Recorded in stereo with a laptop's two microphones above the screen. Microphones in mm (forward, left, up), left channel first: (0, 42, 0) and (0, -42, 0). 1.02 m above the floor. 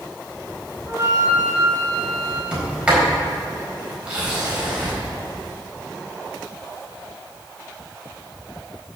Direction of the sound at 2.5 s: 15° right (ahead or behind).